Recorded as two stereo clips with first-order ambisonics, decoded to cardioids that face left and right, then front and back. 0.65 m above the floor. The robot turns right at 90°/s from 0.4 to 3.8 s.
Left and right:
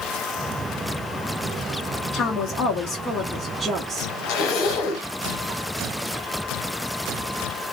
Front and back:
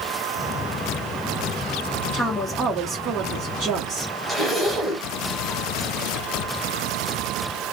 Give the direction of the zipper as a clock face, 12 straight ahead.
9 o'clock.